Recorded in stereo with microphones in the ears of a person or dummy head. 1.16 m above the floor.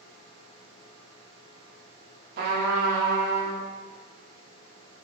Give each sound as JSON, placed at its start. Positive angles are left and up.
{"t": 2.4, "sound": "a trumpet", "side_deg": -60, "distance_m": 1.1}